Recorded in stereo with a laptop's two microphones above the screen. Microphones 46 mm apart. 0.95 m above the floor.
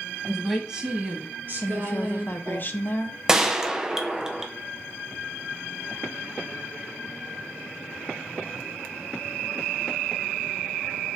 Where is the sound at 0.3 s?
10° left (ahead or behind), 1.2 m; by 2.6 s 65° right (ahead or behind), 3 m.